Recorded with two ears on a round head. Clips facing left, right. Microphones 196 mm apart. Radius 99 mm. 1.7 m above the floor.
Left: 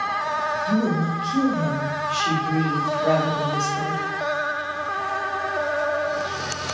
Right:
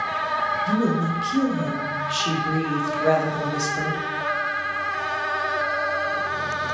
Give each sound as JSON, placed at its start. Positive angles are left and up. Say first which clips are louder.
{"t": 0.7, "sound": "a woman speaking", "louder": "even", "side_deg": -20, "distance_m": 0.9}